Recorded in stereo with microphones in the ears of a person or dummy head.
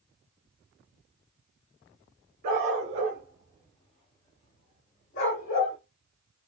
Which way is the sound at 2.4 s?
40° right (ahead or behind).